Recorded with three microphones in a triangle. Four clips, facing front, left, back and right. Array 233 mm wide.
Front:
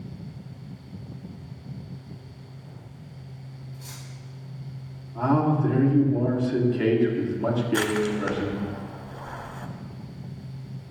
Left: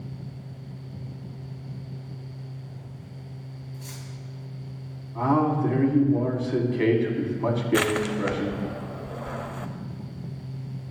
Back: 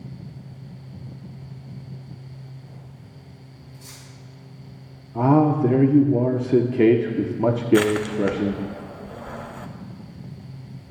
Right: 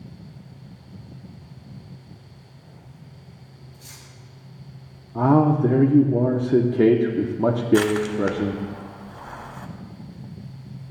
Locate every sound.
3.7 s cutlery clinking: 20° left, 2.5 m
5.2 s a man speaking: 140° right, 1.0 m
7.7 s crushing: 120° left, 0.9 m